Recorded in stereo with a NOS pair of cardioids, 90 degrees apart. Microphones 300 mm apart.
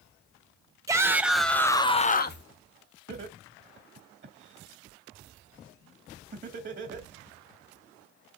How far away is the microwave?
No microwave in this recording.